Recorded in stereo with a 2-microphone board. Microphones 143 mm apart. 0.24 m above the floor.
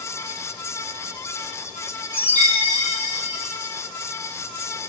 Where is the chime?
15° right (ahead or behind), 1.7 m.